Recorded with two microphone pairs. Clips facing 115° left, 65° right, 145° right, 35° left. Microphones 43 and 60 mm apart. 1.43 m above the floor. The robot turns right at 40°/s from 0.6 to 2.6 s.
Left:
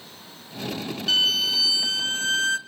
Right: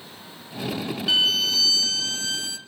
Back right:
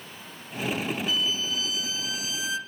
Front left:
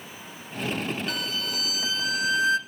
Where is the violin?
20° left, 0.7 m; by 2.6 s 80° left, 0.7 m.